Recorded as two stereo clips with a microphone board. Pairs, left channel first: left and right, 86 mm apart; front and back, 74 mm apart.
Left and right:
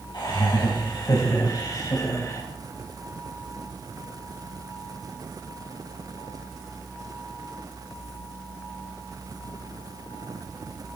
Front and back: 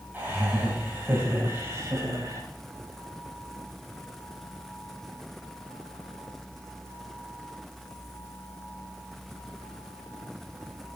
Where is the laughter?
115° left, 3.5 m; by 2.4 s 140° left, 3 m.